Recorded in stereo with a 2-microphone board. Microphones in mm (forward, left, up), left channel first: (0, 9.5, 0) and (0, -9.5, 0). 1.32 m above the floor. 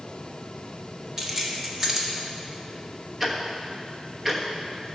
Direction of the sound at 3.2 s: 20° right (ahead or behind).